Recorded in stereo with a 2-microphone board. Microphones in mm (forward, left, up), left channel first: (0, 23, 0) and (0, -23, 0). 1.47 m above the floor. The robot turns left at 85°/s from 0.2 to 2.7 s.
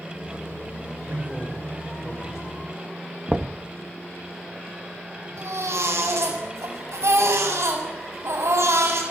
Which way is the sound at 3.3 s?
20° right (ahead or behind).